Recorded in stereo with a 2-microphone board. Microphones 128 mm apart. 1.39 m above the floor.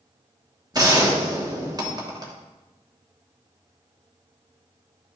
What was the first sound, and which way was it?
A gunshot, 30° right (ahead or behind).